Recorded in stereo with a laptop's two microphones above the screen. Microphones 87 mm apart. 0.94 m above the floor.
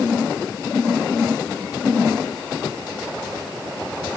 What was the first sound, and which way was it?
Only background noise.